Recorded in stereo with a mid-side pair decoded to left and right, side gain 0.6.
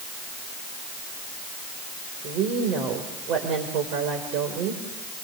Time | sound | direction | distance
2.2 | a woman speaking | 65° right | 4.5 m